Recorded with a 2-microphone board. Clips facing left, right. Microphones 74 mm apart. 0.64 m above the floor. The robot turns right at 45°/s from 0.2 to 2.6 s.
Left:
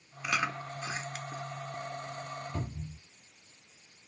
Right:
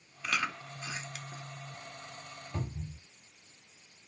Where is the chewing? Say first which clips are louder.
Left 2 dB; 15° left (ahead or behind), 0.8 m; by 1.4 s 45° left (ahead or behind), 0.8 m.